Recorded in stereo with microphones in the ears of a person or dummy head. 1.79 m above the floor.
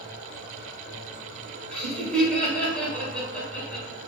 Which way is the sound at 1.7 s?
10° left (ahead or behind).